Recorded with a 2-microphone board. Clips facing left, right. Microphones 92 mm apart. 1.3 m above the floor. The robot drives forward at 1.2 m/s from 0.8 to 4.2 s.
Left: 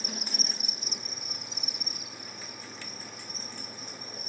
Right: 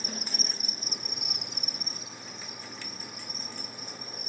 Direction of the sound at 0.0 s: 40° right (ahead or behind).